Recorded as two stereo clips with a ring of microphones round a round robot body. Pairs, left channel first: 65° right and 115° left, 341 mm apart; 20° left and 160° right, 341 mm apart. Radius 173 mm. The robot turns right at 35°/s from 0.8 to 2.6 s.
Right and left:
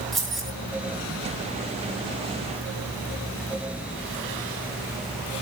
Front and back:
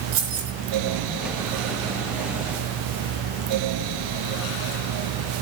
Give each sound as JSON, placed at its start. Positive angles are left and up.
{"t": 0.1, "sound": "keys jangling", "azimuth_deg": -155, "distance_m": 4.0}